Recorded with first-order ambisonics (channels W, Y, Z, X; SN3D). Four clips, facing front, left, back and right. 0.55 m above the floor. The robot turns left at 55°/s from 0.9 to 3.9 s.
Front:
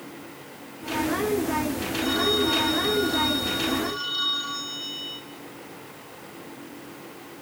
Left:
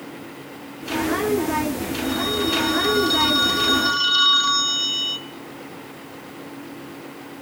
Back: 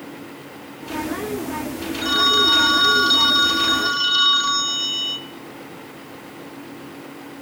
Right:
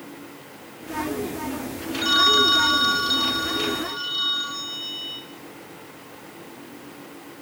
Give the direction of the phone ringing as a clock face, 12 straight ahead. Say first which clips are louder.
Right 7 dB, back 7 dB; 4 o'clock.